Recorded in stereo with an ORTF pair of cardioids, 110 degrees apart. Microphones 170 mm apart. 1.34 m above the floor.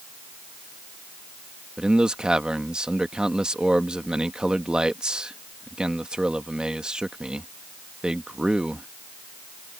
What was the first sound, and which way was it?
A man speaking, 5° right.